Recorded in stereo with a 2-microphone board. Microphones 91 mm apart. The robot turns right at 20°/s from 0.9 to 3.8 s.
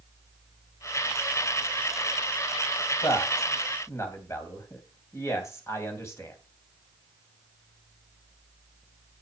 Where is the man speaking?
45° left (ahead or behind), 2.5 m; by 6.4 s 30° left (ahead or behind), 2.5 m.